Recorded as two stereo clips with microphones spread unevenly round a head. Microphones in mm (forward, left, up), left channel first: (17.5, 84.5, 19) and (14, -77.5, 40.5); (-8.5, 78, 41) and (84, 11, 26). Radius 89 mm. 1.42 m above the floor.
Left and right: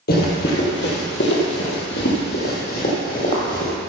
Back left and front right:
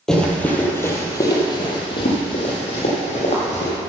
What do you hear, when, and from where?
0.1 s running footsteps: 65° left, 2 m; by 3.7 s 140° left, 3.5 m